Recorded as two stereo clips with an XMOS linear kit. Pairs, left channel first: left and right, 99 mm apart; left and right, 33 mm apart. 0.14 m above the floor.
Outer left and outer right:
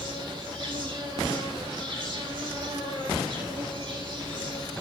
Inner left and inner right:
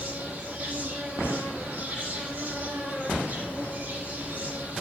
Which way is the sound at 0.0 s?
60° right (ahead or behind).